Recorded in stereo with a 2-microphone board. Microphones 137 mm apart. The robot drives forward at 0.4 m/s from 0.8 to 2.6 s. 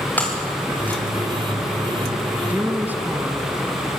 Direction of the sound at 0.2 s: 15° left (ahead or behind).